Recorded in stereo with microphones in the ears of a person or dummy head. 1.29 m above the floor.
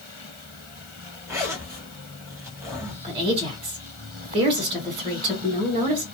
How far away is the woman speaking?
About 1.4 m.